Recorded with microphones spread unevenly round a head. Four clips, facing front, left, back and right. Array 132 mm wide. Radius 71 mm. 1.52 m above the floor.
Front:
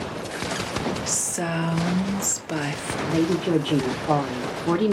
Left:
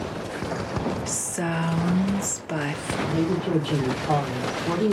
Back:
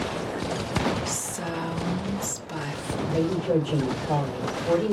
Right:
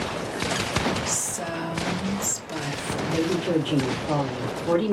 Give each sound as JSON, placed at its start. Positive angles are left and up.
{"t": 1.1, "sound": "a woman speaking", "azimuth_deg": 35, "distance_m": 0.9}
{"t": 3.0, "sound": "a woman speaking", "azimuth_deg": 10, "distance_m": 1.6}